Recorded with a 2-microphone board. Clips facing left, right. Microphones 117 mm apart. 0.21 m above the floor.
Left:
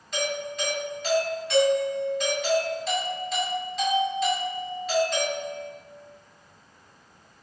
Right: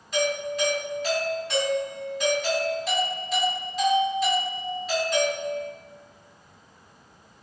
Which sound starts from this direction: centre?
A doorbell, at 0.1 s.